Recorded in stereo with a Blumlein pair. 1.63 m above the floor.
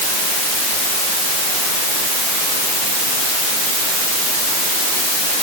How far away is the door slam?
No door slam in this recording.